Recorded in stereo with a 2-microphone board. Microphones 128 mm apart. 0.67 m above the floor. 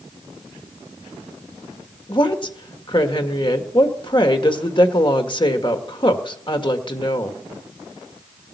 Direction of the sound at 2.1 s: 40° left (ahead or behind).